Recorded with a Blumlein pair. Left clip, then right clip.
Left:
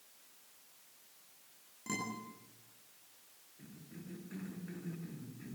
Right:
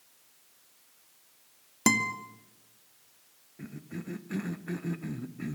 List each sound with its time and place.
1.9 s a guitar: 45° right, 2.5 m
3.6 s a cough: 35° right, 1.6 m